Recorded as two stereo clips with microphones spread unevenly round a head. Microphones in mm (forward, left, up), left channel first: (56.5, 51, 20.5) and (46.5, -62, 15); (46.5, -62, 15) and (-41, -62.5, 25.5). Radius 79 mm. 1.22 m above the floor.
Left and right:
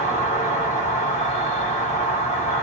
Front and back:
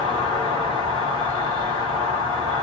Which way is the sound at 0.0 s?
125° left.